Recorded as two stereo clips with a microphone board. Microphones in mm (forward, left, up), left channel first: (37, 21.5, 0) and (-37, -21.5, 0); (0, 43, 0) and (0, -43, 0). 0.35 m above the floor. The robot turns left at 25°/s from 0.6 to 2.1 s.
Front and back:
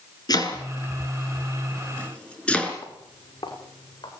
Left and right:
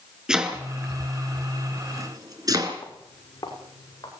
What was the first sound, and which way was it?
Chopping, 10° right.